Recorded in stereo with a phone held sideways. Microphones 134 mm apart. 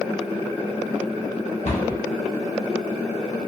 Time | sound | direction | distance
1.6 | a cupboard door | 60° left (ahead or behind) | 0.8 m